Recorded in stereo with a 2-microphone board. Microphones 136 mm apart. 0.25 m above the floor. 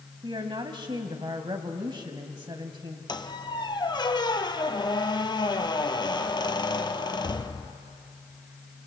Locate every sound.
0.2 s a woman speaking: 35° right (ahead or behind), 1.3 m
3.1 s a squeak: 35° left (ahead or behind), 1.1 m